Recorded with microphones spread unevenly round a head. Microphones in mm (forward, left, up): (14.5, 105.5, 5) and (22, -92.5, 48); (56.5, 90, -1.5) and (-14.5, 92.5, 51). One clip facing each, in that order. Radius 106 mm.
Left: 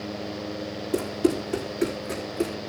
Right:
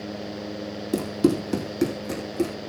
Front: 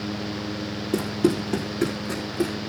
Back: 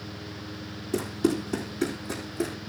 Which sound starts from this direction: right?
Running footsteps, at 0.9 s.